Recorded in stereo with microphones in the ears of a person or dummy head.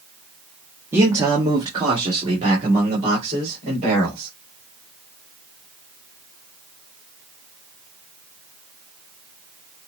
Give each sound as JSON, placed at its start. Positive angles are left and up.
{"t": 0.9, "sound": "a man speaking", "side_deg": -15, "distance_m": 0.9}